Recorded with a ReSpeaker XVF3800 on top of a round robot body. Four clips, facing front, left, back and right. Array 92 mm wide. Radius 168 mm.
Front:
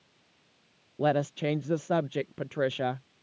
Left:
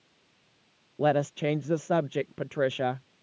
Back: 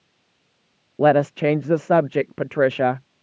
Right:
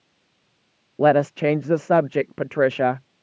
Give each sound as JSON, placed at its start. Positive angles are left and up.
{"t": 1.0, "sound": "a woman speaking", "azimuth_deg": -135}